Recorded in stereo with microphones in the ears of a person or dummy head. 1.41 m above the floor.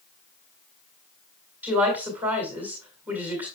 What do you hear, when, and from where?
1.6 s a woman speaking: 5° right (ahead or behind), 2 m